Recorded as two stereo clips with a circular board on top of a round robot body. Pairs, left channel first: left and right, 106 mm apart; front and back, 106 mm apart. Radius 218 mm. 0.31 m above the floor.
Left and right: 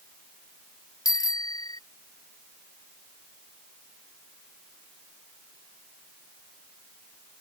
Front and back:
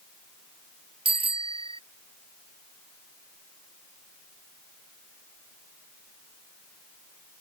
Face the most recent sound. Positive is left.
turn(degrees=145)